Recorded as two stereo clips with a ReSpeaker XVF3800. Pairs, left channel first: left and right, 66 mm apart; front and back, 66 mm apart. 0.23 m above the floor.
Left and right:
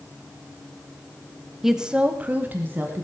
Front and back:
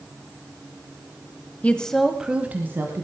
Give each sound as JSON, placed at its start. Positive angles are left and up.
{"t": 1.6, "sound": "a woman speaking", "azimuth_deg": -15, "distance_m": 1.1}